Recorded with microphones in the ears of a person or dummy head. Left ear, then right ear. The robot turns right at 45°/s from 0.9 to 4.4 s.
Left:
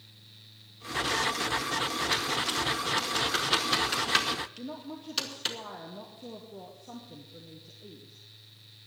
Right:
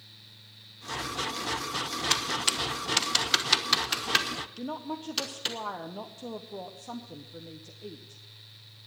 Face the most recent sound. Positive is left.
turn(degrees=-40)  # may be behind; listen again after turning